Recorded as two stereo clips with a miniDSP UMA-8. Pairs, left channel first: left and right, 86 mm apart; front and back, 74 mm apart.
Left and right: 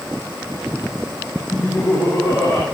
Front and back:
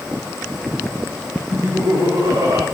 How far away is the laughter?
About 5.5 m.